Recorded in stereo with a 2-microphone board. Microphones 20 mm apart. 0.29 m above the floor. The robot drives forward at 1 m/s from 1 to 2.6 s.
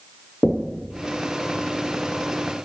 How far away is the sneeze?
I don't hear a sneeze.